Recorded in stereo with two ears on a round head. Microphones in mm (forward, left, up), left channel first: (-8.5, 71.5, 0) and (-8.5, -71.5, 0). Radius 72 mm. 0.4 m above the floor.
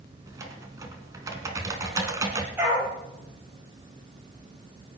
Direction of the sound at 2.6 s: 10° right (ahead or behind).